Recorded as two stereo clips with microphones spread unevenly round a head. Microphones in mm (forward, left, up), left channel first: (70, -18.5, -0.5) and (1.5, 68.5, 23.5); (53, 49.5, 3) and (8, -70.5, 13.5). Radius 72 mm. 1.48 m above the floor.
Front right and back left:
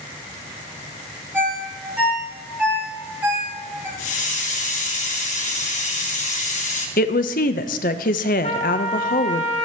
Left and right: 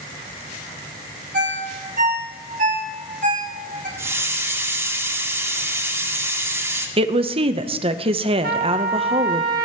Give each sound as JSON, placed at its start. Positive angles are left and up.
{"t": 1.3, "sound": "a ringtone", "azimuth_deg": -150, "distance_m": 3.0}
{"t": 4.0, "sound": "a hiss", "azimuth_deg": -40, "distance_m": 2.5}
{"t": 7.0, "sound": "a woman speaking", "azimuth_deg": -70, "distance_m": 0.9}
{"t": 8.4, "sound": "a trumpet", "azimuth_deg": -100, "distance_m": 1.7}